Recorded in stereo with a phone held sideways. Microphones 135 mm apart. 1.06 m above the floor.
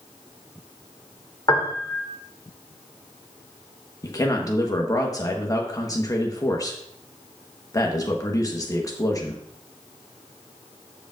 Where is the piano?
30° left (ahead or behind), 1.3 m.